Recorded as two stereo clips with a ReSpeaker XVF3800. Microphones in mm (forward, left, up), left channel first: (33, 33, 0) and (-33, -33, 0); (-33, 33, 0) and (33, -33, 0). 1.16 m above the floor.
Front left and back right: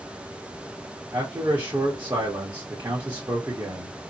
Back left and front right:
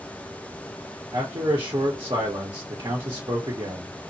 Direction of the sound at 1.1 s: 80° right.